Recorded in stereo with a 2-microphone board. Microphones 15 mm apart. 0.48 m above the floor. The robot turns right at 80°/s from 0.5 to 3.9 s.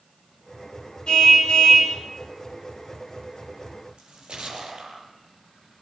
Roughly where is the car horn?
Ahead left.